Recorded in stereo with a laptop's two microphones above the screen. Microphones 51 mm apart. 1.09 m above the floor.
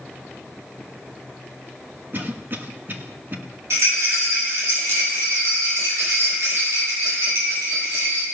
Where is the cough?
40° right (ahead or behind), 1.1 m.